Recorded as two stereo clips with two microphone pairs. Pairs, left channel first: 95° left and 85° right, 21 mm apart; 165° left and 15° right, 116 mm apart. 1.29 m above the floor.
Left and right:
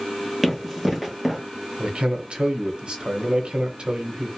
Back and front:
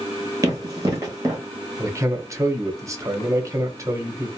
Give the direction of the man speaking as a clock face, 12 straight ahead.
2 o'clock.